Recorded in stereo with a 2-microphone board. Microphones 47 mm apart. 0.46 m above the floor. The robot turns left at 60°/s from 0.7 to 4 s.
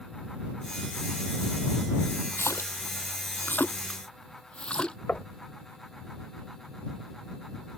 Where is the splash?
60° left (ahead or behind); by 5.0 s 20° left (ahead or behind).